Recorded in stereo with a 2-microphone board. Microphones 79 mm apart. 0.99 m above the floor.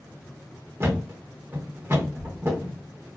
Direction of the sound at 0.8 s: 30° right (ahead or behind).